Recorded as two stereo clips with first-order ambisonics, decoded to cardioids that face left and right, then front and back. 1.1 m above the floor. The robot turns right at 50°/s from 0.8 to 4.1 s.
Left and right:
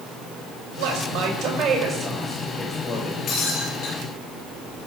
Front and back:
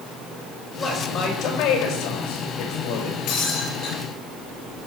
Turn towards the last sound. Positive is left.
turn(degrees=65)